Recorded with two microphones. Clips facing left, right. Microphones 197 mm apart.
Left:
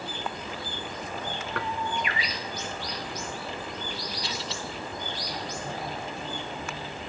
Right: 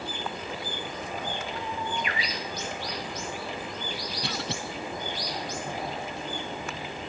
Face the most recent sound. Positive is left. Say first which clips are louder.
# right 2 dB
turn(degrees=-65)  # may be behind; listen again after turning